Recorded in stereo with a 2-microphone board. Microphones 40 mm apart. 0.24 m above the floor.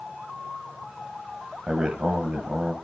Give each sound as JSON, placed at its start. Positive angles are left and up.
{"t": 1.7, "sound": "a man speaking", "side_deg": -20, "distance_m": 1.0}